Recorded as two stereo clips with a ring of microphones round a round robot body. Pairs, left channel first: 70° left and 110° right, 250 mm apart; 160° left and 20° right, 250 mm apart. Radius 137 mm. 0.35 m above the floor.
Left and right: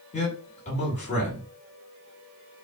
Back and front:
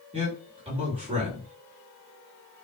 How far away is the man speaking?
About 1.7 m.